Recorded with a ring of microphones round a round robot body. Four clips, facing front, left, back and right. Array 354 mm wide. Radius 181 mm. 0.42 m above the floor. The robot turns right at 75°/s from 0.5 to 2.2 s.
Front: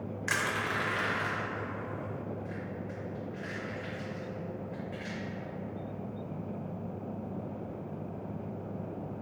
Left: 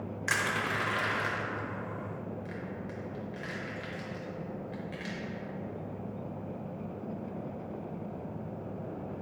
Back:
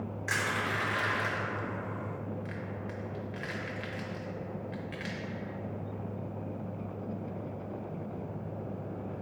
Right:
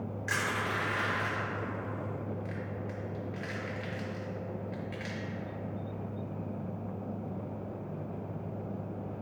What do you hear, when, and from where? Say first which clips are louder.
0.3 s crushing: left 1 dB, even; 60° left, 0.7 m; by 5.2 s 175° right, 0.7 m